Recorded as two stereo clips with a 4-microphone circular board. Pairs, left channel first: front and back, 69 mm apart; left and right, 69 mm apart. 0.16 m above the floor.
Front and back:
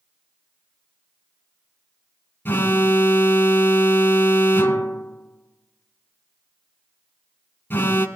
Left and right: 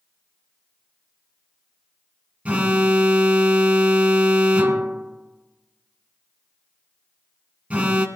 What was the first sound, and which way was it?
An alarm, 30° right.